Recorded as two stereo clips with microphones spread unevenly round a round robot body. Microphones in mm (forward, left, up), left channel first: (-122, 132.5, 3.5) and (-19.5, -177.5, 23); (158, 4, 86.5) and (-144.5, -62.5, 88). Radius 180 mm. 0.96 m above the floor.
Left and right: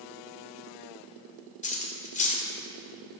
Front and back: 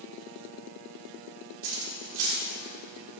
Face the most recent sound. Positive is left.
turn(degrees=175)